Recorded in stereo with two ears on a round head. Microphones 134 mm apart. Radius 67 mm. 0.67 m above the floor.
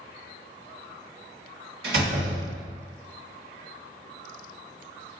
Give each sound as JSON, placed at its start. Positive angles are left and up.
{"t": 1.8, "sound": "a door slam", "side_deg": -80, "distance_m": 1.2}